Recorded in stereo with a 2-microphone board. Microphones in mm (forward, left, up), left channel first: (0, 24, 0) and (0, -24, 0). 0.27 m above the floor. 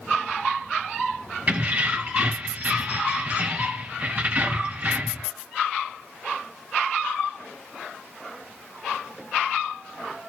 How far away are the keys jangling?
About 1.2 m.